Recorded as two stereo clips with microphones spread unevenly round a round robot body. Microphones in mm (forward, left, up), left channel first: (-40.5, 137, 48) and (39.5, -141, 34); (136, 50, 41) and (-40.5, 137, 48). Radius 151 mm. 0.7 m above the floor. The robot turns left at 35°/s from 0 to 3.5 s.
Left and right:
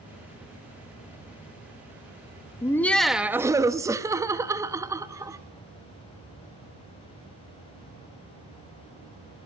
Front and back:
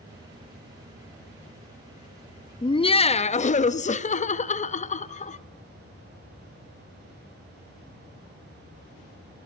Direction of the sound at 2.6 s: 30° left.